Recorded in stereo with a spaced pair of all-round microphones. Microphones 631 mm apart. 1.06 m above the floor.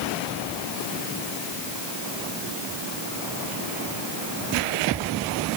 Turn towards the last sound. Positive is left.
No sound to turn to.